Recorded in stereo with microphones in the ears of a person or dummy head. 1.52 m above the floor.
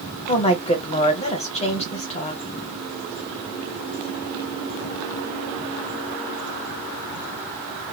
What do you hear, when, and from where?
0.3 s a woman speaking: 35° left (ahead or behind), 1.0 m